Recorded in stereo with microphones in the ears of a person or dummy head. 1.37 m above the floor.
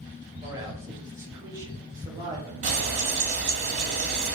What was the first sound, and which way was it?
A man speaking, 15° right (ahead or behind).